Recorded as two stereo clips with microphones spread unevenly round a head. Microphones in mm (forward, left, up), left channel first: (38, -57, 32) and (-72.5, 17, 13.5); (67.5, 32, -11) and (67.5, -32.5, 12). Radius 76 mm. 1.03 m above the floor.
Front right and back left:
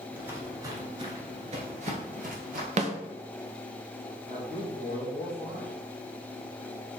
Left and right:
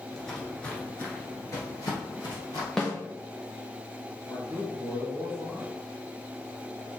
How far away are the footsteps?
About 1.0 m.